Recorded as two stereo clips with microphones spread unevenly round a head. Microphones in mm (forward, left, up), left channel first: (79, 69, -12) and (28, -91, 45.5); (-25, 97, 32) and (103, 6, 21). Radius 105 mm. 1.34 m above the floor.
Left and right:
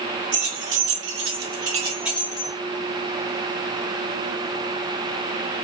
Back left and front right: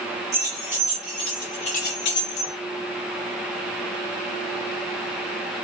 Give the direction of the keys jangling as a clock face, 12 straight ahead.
4 o'clock.